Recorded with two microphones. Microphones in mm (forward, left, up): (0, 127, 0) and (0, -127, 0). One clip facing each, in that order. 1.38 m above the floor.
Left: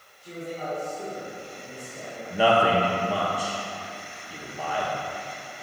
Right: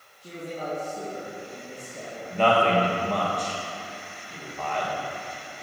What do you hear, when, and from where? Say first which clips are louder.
0.2 s a man speaking: even; 75° right (ahead or behind), 2 m
2.3 s a man speaking: even; 10° left (ahead or behind), 1.2 m